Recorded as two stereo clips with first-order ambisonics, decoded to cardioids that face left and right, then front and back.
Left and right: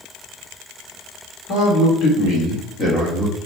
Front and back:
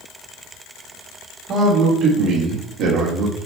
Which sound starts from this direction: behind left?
A man speaking, at 1.5 s.